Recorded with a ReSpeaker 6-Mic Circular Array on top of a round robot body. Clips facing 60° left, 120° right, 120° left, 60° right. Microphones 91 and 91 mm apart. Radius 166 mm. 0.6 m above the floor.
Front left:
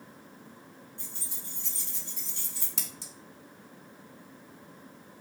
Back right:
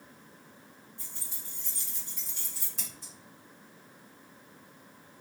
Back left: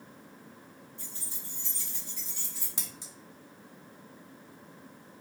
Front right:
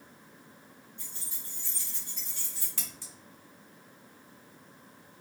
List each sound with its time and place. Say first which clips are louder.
1.0 s keys jangling: front left 4 dB, back left 3 dB; 70° left, 1.8 m; by 2.7 s 35° left, 2.5 m
2.8 s scissors: front left 3 dB, even; 50° left, 0.6 m